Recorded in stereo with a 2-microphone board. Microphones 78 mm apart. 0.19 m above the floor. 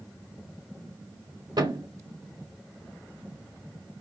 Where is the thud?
65° right (ahead or behind), 3 m.